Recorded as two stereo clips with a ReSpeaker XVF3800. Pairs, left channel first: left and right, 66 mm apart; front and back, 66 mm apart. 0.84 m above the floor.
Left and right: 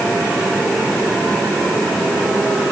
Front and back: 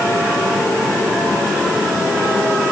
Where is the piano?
No piano in this recording.